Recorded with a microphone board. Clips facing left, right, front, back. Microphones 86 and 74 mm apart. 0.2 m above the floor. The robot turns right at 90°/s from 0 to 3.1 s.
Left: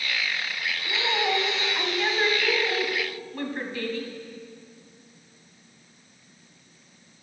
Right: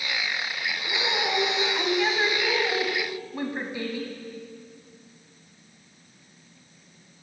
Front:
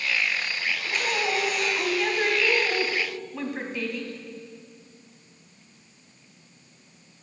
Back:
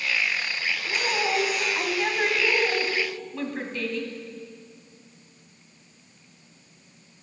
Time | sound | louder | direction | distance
0.9 | a woman speaking | left 2 dB, back 1 dB | 95° left | 1.0 m